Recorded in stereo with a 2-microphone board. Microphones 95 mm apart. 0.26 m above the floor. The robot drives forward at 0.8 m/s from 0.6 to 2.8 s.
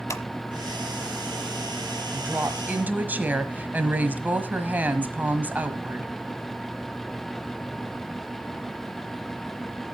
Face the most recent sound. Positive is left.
turn(degrees=-20)  # may be behind; listen again after turning